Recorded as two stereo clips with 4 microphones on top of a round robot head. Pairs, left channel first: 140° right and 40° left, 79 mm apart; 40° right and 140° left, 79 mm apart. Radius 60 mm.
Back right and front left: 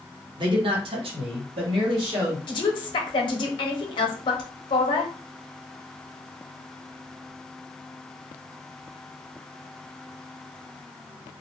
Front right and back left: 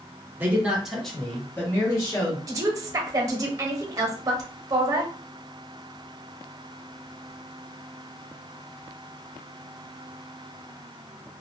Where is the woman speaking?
170° right, 0.7 m.